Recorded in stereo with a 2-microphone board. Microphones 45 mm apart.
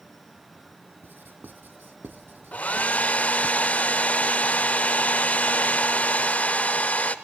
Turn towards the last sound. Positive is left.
turn(degrees=35)  # may be behind; listen again after turning